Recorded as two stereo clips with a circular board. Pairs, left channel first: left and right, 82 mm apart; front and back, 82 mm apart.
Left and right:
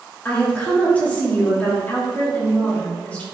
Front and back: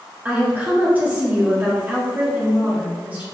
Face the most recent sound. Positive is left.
turn(degrees=140)